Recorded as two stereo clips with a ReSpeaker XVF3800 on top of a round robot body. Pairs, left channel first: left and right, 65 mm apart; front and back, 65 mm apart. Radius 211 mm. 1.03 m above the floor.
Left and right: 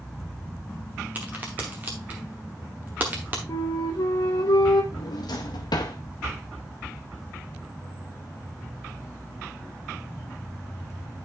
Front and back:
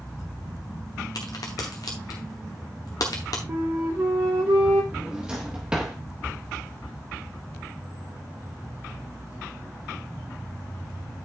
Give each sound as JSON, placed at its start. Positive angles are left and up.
{"t": 1.1, "sound": "a crack", "azimuth_deg": -25, "distance_m": 0.9}
{"t": 3.5, "sound": "a flute", "azimuth_deg": 125, "distance_m": 0.5}
{"t": 4.9, "sound": "a drawer", "azimuth_deg": 105, "distance_m": 0.7}